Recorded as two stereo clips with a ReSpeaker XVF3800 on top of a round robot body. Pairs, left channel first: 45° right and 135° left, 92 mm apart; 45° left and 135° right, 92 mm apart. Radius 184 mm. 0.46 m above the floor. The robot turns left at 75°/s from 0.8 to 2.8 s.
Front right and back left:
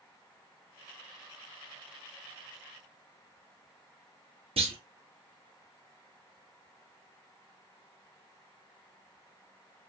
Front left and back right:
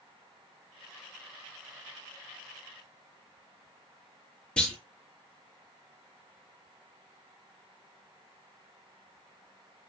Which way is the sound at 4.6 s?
125° left.